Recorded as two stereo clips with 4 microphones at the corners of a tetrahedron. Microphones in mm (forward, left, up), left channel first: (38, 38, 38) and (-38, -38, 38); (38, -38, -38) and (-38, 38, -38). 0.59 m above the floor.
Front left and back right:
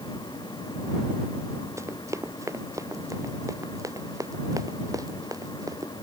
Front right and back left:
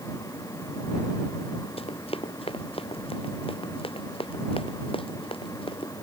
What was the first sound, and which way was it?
Running footsteps, 70° right.